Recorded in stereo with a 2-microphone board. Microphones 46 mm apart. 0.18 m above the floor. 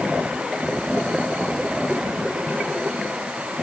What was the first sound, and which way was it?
Only background noise.